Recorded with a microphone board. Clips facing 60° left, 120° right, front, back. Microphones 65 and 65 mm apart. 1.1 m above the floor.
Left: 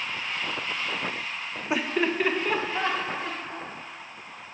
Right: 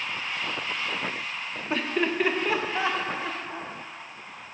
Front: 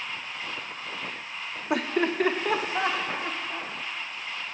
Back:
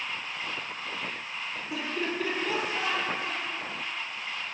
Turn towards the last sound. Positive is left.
turn(degrees=-40)